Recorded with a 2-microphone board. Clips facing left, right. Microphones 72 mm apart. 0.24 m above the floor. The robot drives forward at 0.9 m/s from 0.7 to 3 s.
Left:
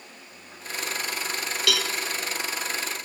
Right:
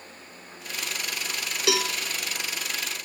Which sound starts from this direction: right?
A cowbell, at 1.7 s.